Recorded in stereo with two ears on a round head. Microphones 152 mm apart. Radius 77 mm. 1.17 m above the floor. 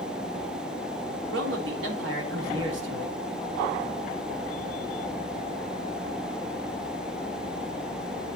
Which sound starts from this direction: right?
A man speaking, at 1.3 s.